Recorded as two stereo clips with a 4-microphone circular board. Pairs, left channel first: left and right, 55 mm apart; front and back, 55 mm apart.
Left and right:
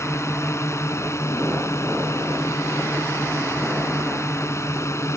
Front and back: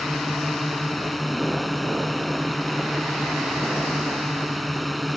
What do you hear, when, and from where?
0.0 s a drone: 90° left